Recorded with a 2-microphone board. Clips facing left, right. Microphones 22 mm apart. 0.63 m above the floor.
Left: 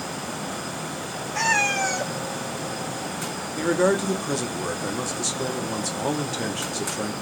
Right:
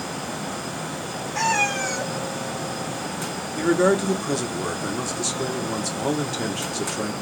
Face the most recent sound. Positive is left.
turn(degrees=0)  # may be behind; listen again after turning